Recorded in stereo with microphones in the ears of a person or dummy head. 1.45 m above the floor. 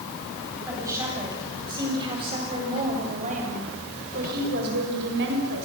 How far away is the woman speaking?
About 9.5 m.